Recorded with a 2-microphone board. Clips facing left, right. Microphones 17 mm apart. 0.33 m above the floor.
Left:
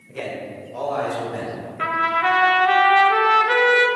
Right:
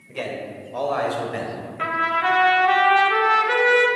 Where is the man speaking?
20° right (ahead or behind), 1.5 m; by 1.7 s 35° right (ahead or behind), 1.9 m.